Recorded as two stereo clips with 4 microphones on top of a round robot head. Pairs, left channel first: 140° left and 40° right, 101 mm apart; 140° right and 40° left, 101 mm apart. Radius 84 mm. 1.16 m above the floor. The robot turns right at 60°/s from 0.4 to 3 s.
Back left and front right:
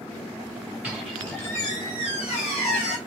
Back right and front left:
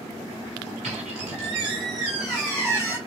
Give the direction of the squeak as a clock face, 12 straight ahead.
11 o'clock.